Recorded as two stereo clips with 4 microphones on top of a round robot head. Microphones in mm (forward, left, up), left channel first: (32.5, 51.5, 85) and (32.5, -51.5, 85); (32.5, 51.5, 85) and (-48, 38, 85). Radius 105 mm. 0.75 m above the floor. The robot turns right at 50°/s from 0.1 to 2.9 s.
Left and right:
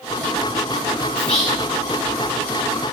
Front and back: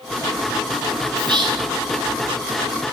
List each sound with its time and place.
1.2 s whispering: 165° left, 1.4 m; by 1.7 s 170° right, 1.4 m